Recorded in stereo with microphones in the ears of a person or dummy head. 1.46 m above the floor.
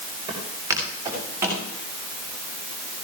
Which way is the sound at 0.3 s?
15° right (ahead or behind).